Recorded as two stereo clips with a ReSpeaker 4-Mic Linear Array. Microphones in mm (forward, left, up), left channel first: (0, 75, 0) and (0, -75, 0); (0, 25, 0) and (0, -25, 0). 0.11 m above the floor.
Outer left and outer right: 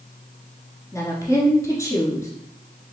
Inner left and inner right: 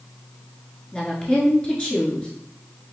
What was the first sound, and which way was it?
A woman speaking, 20° left (ahead or behind).